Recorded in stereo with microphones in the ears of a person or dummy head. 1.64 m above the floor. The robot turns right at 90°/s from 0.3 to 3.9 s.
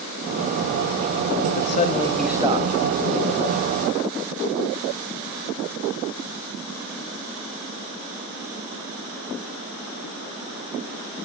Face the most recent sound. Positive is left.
turn(degrees=-30)